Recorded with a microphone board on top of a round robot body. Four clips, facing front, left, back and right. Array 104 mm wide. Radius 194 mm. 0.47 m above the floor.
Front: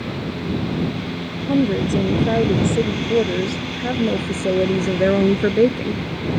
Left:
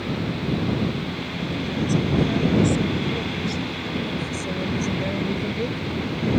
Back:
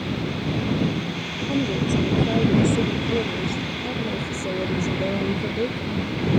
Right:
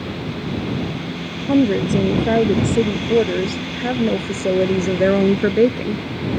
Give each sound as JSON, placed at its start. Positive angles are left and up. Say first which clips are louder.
{"t": 1.5, "sound": "a woman speaking", "louder": "right 10 dB, front 5 dB", "azimuth_deg": -70}